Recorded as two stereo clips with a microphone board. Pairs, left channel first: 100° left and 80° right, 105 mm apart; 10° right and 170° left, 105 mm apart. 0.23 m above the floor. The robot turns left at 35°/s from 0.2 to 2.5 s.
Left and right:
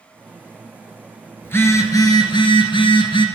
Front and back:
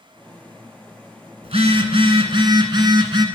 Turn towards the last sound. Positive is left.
turn(degrees=130)